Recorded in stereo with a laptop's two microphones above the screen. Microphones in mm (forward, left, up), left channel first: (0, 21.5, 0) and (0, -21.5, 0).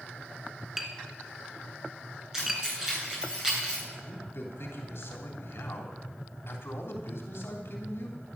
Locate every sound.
0.8 s tapping: 10° right (ahead or behind), 2.5 m
2.3 s keys jangling: 15° right (ahead or behind), 9.5 m
4.0 s a man speaking: 65° left (ahead or behind), 3 m